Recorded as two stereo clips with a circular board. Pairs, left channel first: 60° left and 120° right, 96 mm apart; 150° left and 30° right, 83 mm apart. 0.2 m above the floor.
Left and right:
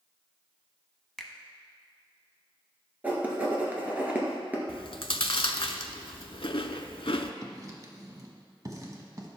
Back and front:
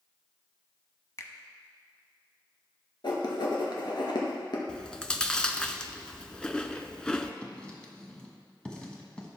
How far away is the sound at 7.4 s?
About 1.3 m.